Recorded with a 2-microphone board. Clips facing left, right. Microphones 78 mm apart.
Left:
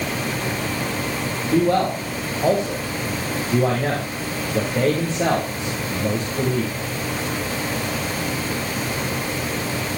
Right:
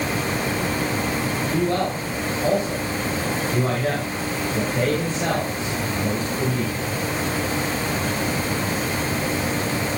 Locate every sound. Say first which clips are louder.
1.5 s a man speaking: left 6 dB; 35° left (ahead or behind), 4 m